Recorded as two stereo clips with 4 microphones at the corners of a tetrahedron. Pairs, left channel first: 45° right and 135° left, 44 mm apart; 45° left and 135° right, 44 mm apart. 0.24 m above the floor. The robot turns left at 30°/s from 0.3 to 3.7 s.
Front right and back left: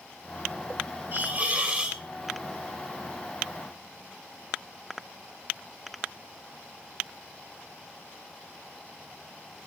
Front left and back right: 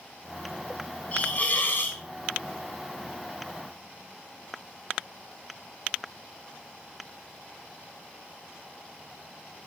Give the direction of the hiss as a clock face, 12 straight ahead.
9 o'clock.